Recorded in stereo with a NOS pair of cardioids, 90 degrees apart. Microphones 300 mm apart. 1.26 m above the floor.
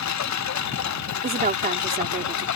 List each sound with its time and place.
0.0 s a lawn mower: 65° left; by 2.6 s 70° left
1.2 s a woman speaking: 30° right